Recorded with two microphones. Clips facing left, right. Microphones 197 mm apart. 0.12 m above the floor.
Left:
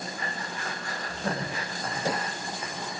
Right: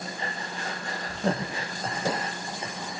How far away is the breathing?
About 5.5 m.